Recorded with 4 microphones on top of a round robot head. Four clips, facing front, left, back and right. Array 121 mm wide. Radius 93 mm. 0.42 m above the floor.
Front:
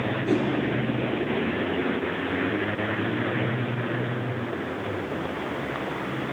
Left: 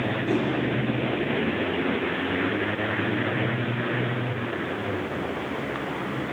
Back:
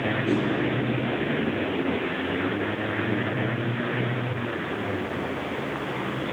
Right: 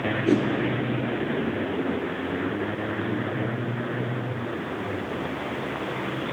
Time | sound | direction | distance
0.3 | a whoosh | 85° right | 6 m